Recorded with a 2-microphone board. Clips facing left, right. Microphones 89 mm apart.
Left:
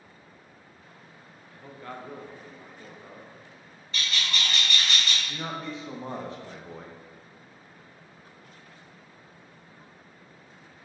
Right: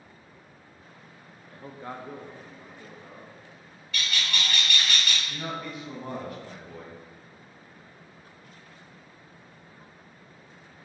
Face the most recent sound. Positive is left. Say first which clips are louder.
# even
turn(degrees=30)  # may be behind; listen again after turning